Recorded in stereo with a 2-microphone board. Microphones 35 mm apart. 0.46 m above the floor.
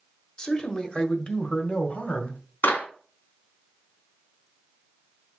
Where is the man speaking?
25° left (ahead or behind), 1.4 m; by 2.4 s 50° left (ahead or behind), 2 m.